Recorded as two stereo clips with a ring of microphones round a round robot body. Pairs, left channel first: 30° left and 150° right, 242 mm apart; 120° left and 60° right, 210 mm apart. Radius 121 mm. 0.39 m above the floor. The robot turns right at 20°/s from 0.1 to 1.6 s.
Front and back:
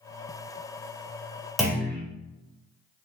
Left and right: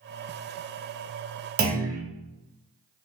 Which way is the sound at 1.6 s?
60° right.